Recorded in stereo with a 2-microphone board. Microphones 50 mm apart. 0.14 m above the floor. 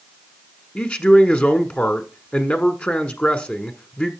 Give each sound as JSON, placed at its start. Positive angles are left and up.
{"t": 0.8, "sound": "a man speaking", "side_deg": 30, "distance_m": 1.1}